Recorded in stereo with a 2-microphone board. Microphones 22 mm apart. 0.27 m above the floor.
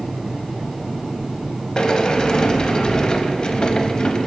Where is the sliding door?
40° left (ahead or behind), 0.6 m.